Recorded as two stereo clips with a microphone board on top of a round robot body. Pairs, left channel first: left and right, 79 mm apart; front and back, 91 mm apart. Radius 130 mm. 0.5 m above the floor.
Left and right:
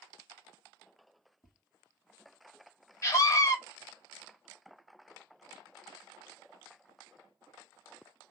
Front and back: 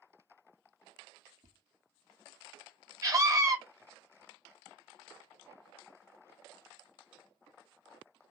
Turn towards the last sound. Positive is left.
turn(degrees=135)